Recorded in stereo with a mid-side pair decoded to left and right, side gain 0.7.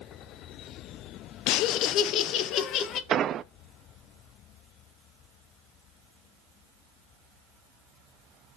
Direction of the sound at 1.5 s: 65° left.